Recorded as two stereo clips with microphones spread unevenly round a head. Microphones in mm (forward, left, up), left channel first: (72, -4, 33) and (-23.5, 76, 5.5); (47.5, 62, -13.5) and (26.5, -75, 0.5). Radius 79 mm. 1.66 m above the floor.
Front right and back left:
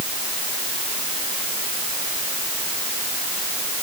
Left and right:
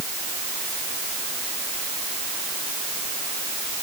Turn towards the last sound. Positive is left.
No sound to turn to.